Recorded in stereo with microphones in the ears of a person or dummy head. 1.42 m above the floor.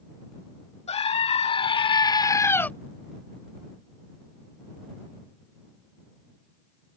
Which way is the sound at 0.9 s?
35° left (ahead or behind).